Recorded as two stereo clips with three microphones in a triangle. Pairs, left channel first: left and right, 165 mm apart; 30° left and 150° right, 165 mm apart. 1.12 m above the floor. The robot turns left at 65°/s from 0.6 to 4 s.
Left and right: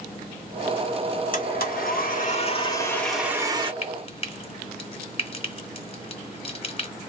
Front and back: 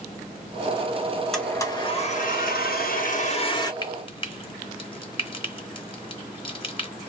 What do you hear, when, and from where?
1.3 s a blender: 120° left, 1.9 m; by 3.7 s 35° right, 1.9 m
3.8 s frying: 75° left, 1.1 m; by 6.9 s 65° left, 1.1 m